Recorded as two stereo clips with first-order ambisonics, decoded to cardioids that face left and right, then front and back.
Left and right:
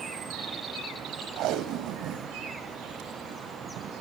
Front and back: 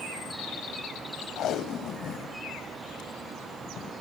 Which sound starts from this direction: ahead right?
Tape being pulled, at 1.4 s.